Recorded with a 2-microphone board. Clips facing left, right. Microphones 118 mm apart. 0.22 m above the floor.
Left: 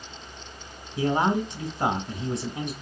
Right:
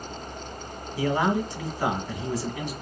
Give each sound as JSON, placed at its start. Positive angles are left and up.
{"t": 1.0, "sound": "a man speaking", "side_deg": 20, "distance_m": 1.6}